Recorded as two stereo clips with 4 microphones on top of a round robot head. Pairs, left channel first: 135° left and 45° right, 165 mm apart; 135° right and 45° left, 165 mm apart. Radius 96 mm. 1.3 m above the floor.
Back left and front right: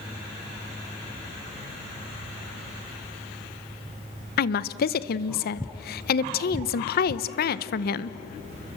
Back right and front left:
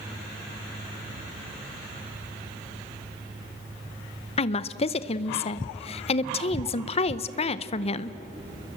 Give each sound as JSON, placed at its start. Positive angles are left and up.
{"t": 4.4, "sound": "a woman speaking", "azimuth_deg": 170, "distance_m": 0.7}